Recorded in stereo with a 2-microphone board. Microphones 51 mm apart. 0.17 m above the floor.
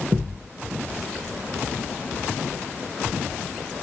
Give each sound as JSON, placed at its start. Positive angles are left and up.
{"t": 0.1, "sound": "a thud", "side_deg": -30, "distance_m": 3.0}